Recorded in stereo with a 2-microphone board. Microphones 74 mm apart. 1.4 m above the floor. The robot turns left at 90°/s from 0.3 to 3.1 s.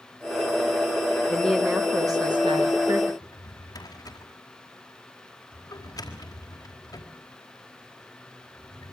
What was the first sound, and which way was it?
A woman speaking, 20° left.